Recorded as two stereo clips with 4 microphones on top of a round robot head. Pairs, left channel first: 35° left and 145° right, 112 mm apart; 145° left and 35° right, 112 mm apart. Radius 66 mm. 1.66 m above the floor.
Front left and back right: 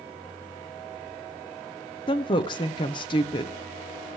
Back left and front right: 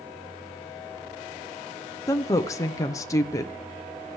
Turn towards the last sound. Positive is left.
turn(degrees=80)